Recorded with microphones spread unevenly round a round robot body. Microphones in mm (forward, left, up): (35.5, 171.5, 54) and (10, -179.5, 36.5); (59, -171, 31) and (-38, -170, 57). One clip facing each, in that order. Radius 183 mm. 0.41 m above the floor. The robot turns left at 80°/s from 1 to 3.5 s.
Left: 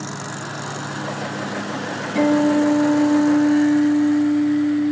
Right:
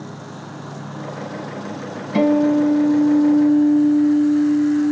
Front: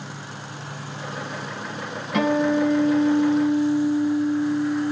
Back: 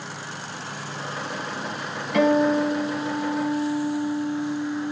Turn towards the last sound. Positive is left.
turn(degrees=170)